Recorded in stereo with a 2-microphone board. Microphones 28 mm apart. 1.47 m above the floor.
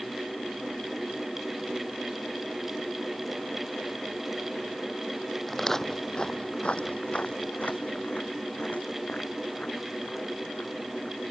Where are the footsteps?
10° left (ahead or behind); by 11.2 s 50° left (ahead or behind).